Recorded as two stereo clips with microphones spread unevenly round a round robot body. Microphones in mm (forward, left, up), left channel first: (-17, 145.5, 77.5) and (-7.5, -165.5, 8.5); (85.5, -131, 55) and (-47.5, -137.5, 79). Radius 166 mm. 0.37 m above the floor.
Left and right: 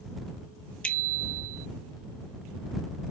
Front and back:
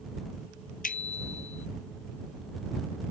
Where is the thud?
No thud in this recording.